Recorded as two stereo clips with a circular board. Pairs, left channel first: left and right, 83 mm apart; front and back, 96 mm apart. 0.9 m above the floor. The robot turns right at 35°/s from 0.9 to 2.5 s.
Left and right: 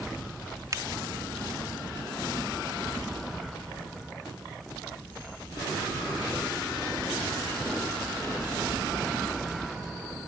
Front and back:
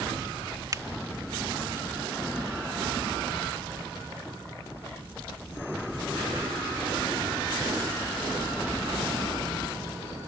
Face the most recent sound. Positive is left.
turn(degrees=-75)